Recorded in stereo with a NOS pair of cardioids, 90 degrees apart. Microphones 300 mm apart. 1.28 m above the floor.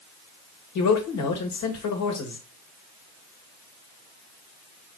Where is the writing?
I don't hear writing.